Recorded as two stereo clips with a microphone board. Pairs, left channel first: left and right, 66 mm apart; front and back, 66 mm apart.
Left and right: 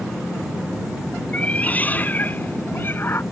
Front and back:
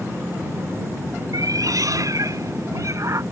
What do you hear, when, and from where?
1.3 s a cat meowing: 160° left; by 3.2 s 140° left